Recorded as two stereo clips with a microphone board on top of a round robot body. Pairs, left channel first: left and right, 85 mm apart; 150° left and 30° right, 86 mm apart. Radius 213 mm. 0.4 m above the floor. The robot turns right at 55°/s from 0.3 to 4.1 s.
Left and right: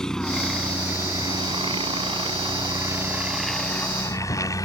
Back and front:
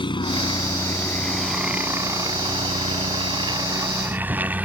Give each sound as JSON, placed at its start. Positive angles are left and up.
{"t": 0.0, "sound": "a helicopter", "azimuth_deg": 175}